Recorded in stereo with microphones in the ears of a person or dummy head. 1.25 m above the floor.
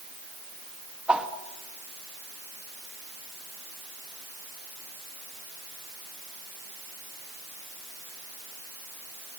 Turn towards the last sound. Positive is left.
turn(degrees=-5)  # may be behind; listen again after turning